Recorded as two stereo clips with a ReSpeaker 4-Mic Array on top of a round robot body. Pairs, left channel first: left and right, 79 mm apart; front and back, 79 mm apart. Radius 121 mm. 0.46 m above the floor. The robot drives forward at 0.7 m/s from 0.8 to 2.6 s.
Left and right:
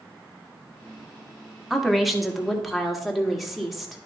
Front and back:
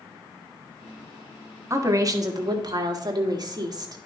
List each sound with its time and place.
1.7 s a woman speaking: 175° right, 1.3 m; by 4.0 s straight behind, 1.8 m